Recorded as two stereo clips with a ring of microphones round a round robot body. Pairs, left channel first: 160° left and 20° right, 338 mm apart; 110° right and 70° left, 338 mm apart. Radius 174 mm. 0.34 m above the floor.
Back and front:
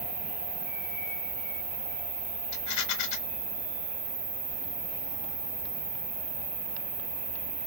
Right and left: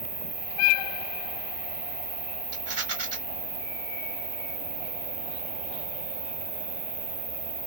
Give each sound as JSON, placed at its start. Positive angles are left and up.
{"t": 0.0, "sound": "an insect", "azimuth_deg": 5, "distance_m": 1.5}
{"t": 2.5, "sound": "a rattle", "azimuth_deg": 115, "distance_m": 1.0}